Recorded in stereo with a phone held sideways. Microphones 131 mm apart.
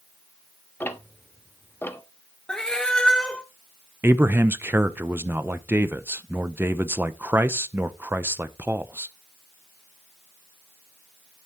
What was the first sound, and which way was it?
Ticking, 15° left (ahead or behind).